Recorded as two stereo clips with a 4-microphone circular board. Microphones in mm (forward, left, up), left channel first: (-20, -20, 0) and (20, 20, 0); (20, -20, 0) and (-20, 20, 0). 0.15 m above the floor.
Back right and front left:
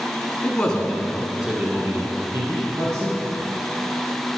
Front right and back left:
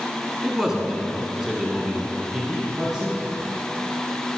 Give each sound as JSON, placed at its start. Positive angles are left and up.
{"t": 0.4, "sound": "a man speaking", "azimuth_deg": -155, "distance_m": 1.2}